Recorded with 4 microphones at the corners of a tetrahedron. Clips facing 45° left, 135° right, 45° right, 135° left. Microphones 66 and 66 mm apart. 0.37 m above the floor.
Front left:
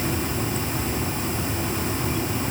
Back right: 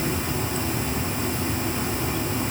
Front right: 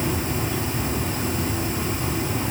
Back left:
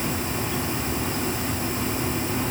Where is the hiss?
I don't hear a hiss.